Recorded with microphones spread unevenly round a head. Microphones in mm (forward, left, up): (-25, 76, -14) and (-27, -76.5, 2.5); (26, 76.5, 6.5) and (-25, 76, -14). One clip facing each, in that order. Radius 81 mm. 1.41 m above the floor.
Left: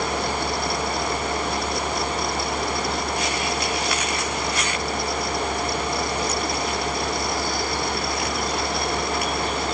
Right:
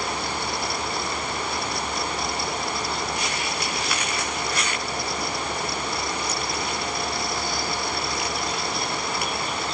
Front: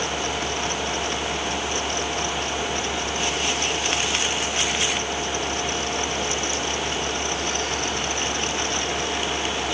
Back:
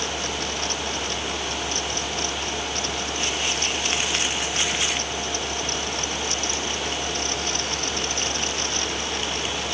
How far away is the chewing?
I don't hear chewing.